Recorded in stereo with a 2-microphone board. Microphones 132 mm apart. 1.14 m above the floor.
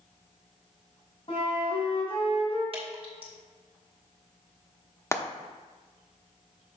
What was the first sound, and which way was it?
A flute, 50° left (ahead or behind).